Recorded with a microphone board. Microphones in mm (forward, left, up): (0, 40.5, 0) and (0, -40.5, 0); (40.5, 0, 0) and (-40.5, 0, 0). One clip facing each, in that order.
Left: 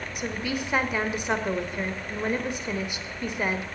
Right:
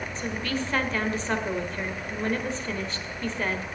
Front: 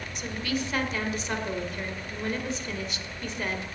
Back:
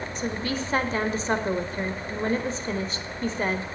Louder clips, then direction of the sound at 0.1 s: Left 1 dB, back 1 dB; 155° left.